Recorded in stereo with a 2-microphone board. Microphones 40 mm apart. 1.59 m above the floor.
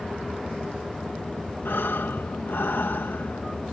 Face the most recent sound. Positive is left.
turn(degrees=75)  # may be behind; listen again after turning